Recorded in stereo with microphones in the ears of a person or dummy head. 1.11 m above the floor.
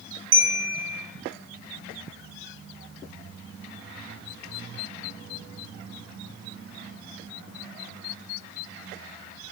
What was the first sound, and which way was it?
A bell, 70° right (ahead or behind).